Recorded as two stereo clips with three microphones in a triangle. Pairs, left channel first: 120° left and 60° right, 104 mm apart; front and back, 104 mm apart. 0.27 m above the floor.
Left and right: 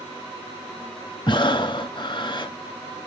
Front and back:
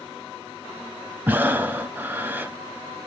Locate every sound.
1.3 s breathing: 115° left, 0.7 m